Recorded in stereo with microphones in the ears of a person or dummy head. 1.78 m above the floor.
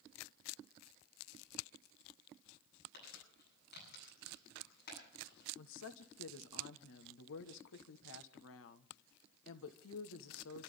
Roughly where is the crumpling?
Left.